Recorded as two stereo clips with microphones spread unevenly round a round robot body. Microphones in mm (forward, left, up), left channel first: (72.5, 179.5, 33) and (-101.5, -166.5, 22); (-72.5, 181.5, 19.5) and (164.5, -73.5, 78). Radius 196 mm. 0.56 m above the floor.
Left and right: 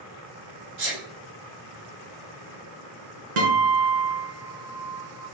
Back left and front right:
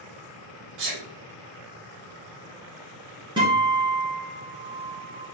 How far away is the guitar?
About 1.7 m.